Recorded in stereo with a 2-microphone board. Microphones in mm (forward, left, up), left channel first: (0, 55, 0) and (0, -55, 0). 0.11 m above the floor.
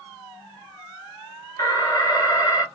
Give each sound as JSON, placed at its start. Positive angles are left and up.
{"t": 1.6, "sound": "an alarm", "side_deg": 35, "distance_m": 1.2}